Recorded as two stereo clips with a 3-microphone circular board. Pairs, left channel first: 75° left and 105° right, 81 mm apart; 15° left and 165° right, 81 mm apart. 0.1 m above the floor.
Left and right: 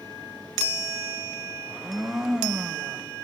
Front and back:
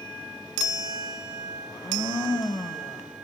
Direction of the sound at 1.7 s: 20° right.